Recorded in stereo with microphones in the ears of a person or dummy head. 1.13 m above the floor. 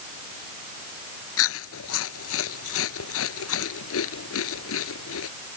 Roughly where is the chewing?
Left.